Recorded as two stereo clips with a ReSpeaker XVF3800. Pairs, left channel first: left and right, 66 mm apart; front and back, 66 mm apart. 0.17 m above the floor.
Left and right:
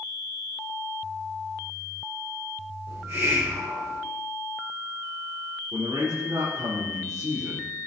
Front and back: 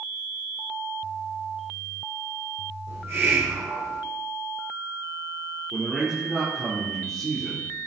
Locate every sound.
2.9 s a hiss: 130° right, 3.5 m
5.7 s a man speaking: 85° right, 4 m